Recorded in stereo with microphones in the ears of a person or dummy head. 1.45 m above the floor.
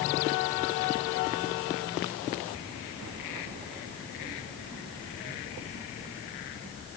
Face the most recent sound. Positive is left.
No sound to turn to.